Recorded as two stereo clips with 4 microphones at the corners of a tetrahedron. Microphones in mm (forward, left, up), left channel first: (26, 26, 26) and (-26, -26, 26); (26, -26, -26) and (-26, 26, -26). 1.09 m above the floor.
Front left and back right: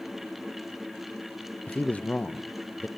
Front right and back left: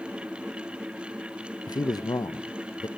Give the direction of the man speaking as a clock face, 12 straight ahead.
1 o'clock.